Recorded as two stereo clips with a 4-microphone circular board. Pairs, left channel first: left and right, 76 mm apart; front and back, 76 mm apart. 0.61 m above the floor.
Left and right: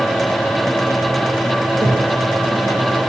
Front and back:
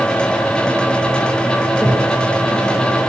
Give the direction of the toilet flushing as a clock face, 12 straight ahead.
3 o'clock.